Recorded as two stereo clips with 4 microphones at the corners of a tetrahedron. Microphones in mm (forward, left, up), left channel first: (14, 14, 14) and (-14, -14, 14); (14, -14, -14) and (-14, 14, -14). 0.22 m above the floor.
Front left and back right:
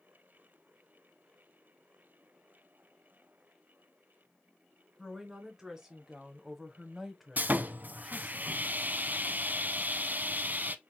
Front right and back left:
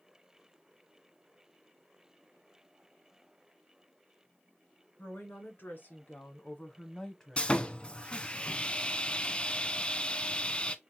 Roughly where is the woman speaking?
Ahead right.